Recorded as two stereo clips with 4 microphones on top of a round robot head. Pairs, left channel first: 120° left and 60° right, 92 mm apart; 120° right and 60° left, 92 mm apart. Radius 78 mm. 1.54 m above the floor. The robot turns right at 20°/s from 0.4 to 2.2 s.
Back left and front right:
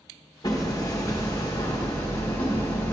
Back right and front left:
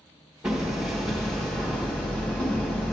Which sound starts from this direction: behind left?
Hammering, at 0.4 s.